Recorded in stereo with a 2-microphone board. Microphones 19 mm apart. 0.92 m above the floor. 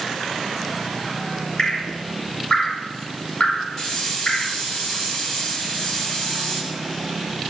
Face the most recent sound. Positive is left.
turn(degrees=15)  # may be behind; listen again after turning